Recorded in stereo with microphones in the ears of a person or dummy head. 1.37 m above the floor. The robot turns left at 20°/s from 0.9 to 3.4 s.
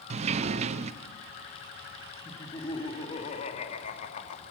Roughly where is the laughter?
Centre.